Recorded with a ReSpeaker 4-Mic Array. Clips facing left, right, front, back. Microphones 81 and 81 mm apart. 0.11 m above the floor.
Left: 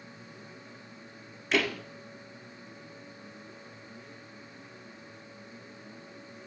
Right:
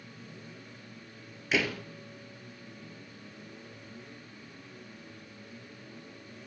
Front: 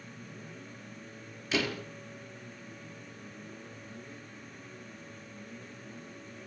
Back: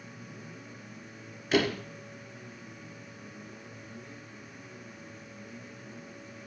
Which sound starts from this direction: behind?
A door slam, at 1.5 s.